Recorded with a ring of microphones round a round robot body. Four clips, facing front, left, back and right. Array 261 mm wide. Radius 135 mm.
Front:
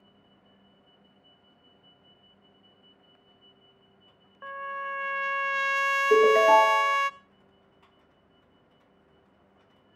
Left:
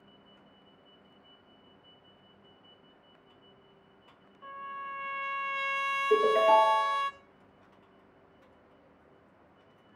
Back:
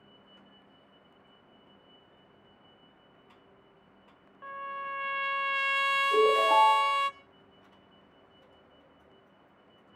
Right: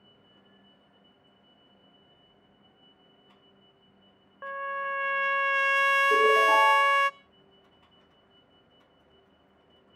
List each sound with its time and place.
4.4 s a trumpet: 75° right, 0.6 m
6.1 s a ringtone: 5° left, 9 m